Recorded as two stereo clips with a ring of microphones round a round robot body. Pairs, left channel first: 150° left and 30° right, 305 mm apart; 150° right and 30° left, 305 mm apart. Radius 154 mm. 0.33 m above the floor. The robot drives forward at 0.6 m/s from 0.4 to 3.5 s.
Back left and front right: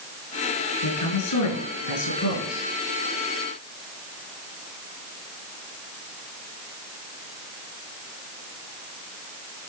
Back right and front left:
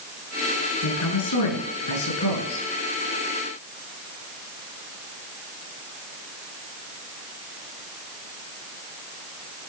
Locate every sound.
0.8 s a woman speaking: straight behind, 5 m